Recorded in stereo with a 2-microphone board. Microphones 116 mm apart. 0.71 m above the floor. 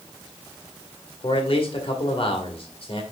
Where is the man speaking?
55° left (ahead or behind), 2 m.